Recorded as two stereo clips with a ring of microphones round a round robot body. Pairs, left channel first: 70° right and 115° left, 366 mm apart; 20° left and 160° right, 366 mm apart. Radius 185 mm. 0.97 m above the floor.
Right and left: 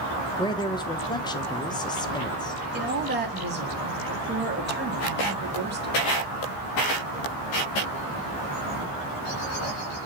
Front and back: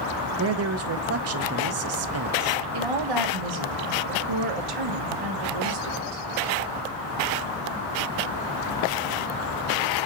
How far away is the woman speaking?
About 1.6 m.